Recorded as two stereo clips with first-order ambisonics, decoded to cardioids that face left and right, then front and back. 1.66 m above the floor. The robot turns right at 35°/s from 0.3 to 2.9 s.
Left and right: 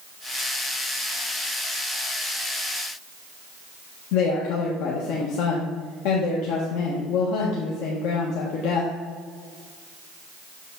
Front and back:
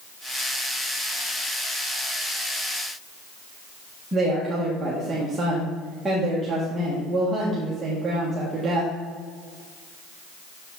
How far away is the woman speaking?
About 1.6 m.